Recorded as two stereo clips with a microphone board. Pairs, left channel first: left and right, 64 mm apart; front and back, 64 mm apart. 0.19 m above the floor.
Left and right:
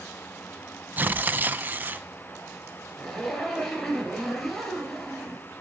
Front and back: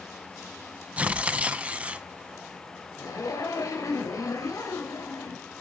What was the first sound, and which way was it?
Tearing paper, 125° right.